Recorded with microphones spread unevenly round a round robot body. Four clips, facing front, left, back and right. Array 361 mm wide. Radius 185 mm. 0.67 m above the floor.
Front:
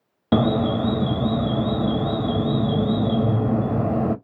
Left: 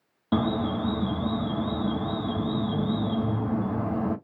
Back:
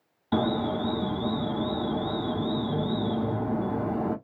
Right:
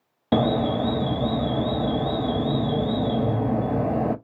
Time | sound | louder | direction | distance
0.3 | an alarm | right 4 dB, front 6 dB | 45° right | 0.7 m